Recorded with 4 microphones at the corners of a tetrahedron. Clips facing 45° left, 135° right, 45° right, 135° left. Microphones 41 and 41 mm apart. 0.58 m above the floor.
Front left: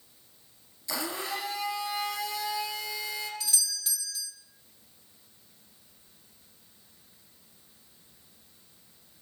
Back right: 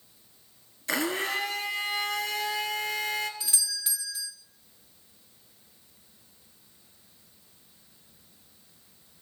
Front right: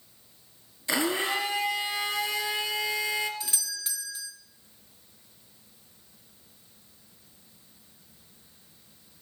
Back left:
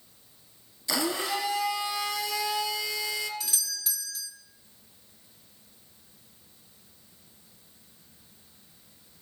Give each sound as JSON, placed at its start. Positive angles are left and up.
{"t": 0.9, "sound": "a blender", "azimuth_deg": -100, "distance_m": 2.0}
{"t": 3.4, "sound": "a doorbell", "azimuth_deg": -80, "distance_m": 1.2}